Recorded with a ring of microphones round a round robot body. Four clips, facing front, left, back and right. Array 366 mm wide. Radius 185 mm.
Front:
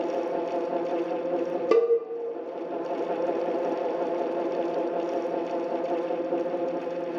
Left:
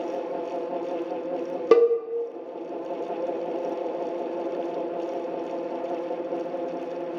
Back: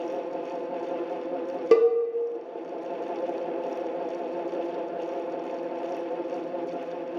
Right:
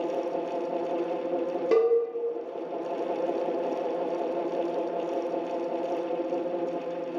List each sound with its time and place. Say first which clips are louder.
1.7 s a cowbell: left 5 dB, back 2 dB; 95° left, 0.5 m